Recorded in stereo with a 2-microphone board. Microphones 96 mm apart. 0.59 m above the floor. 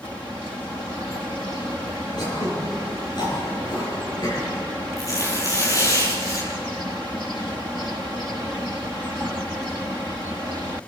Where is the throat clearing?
50° left (ahead or behind), 6.5 m.